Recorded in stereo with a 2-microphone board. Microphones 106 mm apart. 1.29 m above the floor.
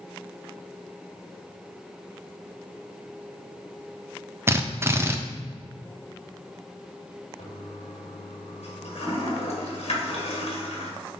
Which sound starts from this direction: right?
A drill, at 4.5 s.